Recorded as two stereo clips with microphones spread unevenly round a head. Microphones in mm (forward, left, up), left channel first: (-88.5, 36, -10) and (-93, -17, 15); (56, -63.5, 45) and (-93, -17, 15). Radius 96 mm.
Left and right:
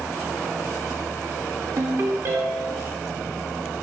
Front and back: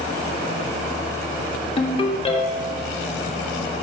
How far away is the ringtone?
About 2 m.